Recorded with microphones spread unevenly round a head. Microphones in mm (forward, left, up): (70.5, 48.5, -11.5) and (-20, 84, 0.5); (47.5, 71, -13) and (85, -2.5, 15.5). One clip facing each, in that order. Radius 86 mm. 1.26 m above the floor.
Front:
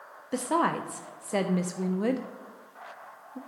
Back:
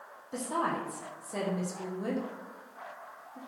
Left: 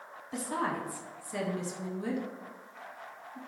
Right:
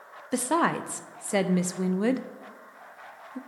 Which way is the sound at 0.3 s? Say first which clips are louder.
Front 5 dB, right 8 dB; 70° right.